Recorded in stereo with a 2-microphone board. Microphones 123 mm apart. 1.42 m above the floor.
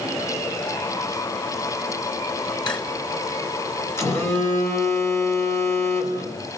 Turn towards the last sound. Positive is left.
turn(degrees=20)  # may be behind; listen again after turning